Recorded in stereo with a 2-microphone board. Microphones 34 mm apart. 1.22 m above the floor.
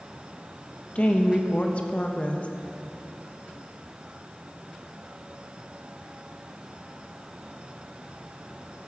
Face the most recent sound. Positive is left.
turn(degrees=40)  # may be behind; listen again after turning